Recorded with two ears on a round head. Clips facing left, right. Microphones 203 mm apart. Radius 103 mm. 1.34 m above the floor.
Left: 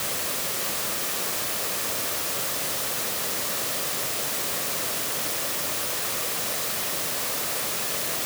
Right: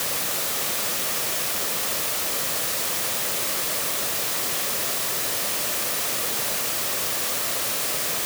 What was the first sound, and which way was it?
Only background noise.